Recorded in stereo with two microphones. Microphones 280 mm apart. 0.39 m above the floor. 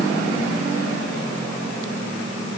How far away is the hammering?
I don't hear hammering.